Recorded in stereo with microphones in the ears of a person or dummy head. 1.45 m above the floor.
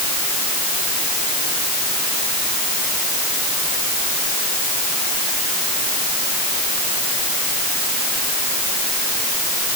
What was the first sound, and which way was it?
Only background noise.